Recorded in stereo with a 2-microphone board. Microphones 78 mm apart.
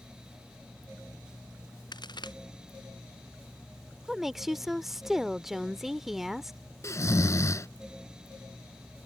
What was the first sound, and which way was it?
A crack, 65° left (ahead or behind).